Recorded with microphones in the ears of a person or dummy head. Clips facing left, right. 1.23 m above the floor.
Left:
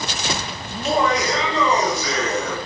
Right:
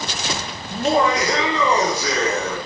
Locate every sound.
0.7 s laughter: 35° right (ahead or behind), 0.5 m; by 2.6 s 50° right (ahead or behind), 1.6 m